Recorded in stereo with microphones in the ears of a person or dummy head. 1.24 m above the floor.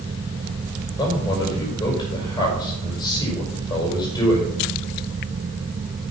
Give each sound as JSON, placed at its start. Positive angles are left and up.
{"t": 1.0, "sound": "a man speaking", "side_deg": 25, "distance_m": 5.5}